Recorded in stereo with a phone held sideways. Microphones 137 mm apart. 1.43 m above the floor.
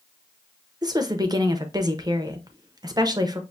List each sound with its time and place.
0.8 s a woman speaking: 30° right (ahead or behind), 0.7 m